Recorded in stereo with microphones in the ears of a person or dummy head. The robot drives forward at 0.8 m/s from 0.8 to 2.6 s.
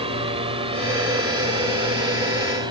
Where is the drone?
25° right (ahead or behind); by 2.7 s 20° right (ahead or behind).